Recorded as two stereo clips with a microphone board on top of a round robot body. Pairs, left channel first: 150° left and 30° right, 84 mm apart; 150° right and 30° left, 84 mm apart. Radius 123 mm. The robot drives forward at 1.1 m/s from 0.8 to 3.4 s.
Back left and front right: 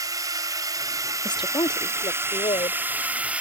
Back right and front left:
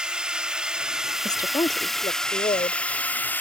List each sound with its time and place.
0.0 s a drone: 50° right; by 3.4 s 95° right
1.2 s a woman speaking: 170° left; by 2.8 s 175° left